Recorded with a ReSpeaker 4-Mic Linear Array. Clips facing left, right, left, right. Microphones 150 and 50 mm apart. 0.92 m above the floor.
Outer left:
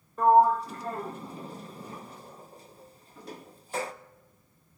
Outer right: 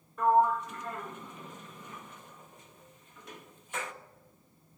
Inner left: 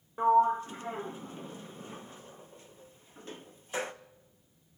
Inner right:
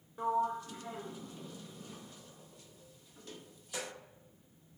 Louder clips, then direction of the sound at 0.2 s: Outer left 5 dB, inner left 9 dB; 35° left (ahead or behind).